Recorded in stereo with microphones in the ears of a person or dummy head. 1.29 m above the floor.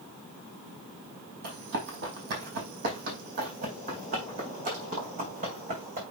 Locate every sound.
1.4 s running footsteps: 50° right (ahead or behind), 2.5 m; by 6.0 s 40° right (ahead or behind), 5 m